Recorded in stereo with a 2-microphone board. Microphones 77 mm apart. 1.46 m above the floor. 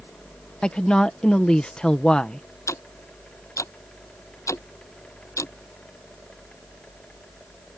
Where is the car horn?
I don't hear a car horn.